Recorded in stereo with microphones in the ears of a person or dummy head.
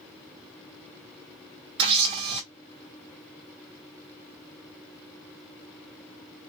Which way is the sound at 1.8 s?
30° right (ahead or behind).